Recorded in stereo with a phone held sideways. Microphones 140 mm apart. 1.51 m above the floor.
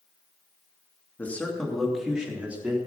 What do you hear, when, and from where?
1.2 s a man speaking: 10° left (ahead or behind), 2.5 m; by 2.8 s 15° right (ahead or behind), 4 m